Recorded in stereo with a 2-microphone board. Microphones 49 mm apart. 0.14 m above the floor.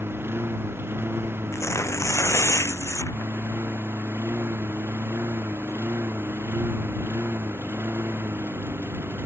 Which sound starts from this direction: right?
A lawn mower, at 0.0 s.